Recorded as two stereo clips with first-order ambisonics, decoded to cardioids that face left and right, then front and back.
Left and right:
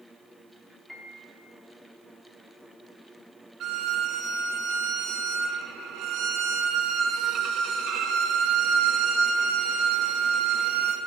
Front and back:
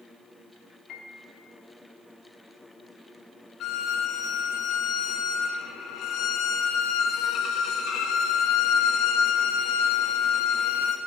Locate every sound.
0.9 s a piano: 5° left, 1.2 m
3.6 s a violin: 45° right, 0.6 m